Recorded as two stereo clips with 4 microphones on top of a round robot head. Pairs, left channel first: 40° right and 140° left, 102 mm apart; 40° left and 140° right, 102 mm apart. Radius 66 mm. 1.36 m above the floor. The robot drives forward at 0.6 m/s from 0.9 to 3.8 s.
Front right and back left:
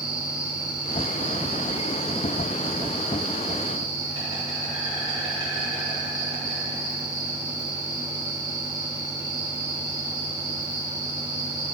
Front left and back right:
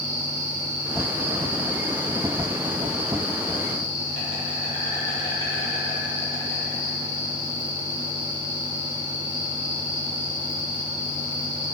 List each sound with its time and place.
0.0 s an insect: 140° right, 0.9 m; by 11.8 s 165° right, 2.5 m